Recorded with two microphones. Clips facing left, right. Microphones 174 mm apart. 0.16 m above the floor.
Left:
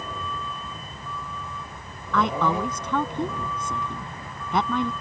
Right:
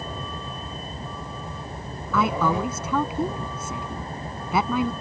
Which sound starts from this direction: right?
A vehicle, at 0.0 s.